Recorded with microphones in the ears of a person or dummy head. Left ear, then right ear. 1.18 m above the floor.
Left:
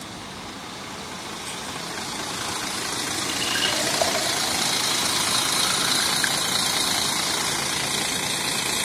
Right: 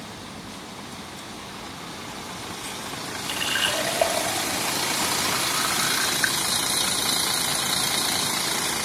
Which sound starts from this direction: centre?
A running tap, at 3.2 s.